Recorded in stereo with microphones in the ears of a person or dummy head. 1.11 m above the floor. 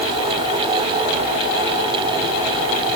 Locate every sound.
Only background noise.